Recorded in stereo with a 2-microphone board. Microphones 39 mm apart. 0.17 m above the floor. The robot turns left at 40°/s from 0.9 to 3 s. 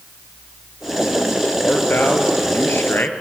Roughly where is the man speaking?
Behind left.